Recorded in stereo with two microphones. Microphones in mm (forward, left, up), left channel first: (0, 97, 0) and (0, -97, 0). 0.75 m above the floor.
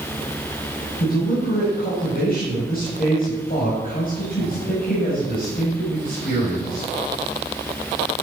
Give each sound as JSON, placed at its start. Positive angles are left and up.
{"t": 1.0, "sound": "a man speaking", "side_deg": 50, "distance_m": 4.0}